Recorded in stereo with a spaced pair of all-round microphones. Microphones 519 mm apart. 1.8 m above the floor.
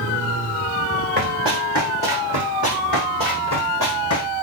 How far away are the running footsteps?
About 3.5 m.